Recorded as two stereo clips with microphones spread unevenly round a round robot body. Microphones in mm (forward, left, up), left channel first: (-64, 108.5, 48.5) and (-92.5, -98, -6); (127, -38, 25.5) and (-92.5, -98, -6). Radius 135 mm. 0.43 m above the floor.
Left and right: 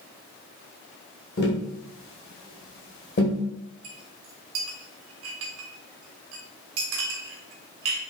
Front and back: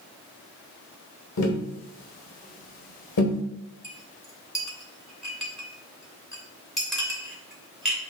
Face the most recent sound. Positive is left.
turn(degrees=-75)